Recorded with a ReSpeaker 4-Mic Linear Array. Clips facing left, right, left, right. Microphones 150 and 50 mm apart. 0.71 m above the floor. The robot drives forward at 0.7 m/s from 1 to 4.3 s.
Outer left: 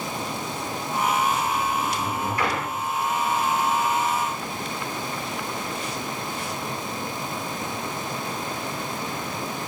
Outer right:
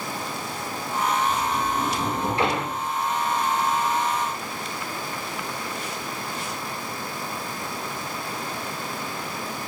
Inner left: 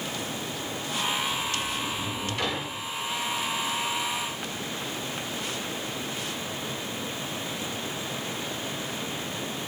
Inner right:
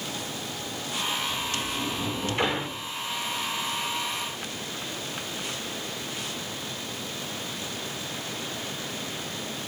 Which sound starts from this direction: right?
A sliding door, at 1.3 s.